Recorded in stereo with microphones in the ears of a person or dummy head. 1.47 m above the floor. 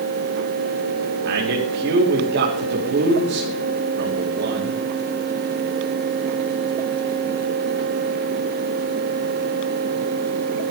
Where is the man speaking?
60° right (ahead or behind), 3.5 m.